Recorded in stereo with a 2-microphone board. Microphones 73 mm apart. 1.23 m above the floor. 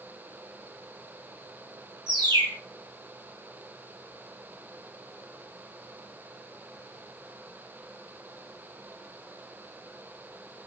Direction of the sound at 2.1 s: 75° right (ahead or behind).